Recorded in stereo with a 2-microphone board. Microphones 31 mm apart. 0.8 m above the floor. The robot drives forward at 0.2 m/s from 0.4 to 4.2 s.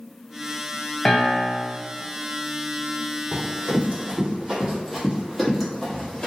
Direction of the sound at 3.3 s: 50° right (ahead or behind).